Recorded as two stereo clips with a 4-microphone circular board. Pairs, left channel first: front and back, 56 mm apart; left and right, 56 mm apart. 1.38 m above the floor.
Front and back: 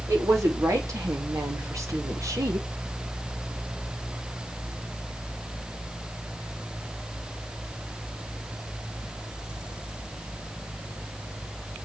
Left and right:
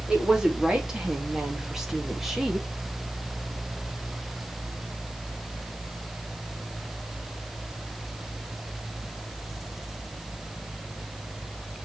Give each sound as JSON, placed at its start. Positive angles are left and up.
{"t": 0.1, "sound": "a woman speaking", "azimuth_deg": -165, "distance_m": 3.0}